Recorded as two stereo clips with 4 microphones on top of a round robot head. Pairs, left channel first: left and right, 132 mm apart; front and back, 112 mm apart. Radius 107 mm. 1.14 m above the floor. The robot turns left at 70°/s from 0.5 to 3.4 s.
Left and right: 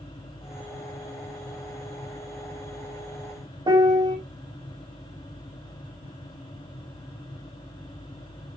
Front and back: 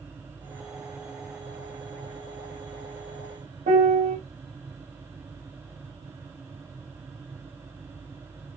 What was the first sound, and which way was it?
A piano, 150° right.